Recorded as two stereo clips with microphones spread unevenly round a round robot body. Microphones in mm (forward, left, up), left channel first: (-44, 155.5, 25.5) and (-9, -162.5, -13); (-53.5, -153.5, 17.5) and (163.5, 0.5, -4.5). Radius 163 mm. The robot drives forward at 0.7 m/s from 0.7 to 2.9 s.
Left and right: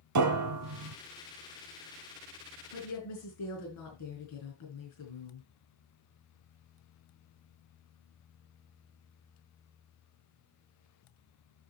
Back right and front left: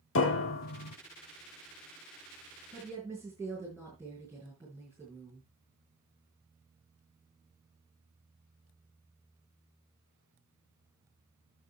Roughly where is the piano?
Right.